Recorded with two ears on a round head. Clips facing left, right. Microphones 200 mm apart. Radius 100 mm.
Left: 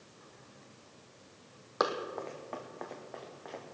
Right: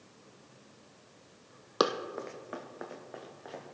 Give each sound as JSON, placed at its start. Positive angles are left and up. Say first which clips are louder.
{"t": 1.8, "sound": "running footsteps", "louder": "right 3 dB", "side_deg": -45, "distance_m": 1.0}